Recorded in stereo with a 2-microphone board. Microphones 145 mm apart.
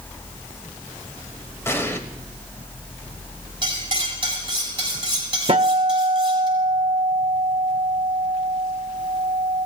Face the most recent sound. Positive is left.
turn(degrees=-45)  # may be behind; listen again after turning